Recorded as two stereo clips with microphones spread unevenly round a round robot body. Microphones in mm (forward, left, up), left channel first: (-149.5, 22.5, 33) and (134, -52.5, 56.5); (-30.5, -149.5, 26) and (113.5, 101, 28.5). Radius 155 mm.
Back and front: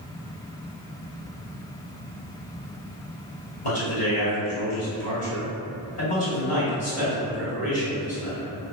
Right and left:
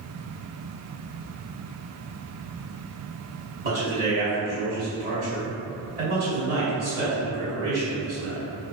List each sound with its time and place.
3.6 s a man speaking: 110° left, 1.7 m